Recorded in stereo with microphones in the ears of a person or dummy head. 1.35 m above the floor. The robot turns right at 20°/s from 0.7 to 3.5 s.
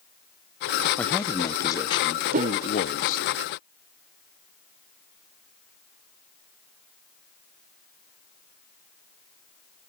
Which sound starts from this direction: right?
A whoosh, at 2.3 s.